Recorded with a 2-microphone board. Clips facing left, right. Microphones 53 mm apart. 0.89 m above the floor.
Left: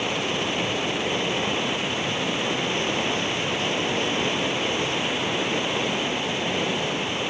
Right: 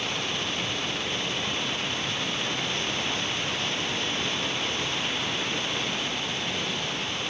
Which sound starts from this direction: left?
Running water, at 0.0 s.